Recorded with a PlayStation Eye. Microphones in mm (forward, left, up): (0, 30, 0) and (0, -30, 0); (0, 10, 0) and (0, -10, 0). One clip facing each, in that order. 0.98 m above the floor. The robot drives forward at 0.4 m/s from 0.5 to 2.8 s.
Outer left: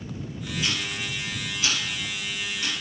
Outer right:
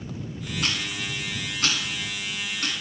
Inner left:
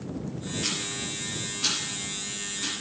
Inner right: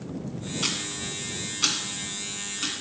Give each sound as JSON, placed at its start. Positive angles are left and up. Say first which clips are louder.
{"t": 0.6, "sound": "ticking", "louder": "outer right 1 dB, inner right 2 dB", "side_deg": -65, "distance_m": 1.6}